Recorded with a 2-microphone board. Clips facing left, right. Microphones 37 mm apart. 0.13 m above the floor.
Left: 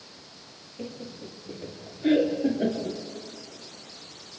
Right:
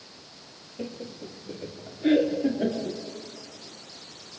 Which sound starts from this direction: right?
Laughter, at 0.8 s.